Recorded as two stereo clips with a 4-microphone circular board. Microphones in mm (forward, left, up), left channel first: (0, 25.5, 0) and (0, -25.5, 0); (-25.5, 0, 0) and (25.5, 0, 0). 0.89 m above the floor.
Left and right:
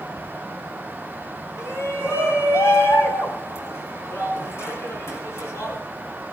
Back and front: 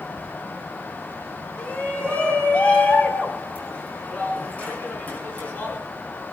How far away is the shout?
About 4.5 m.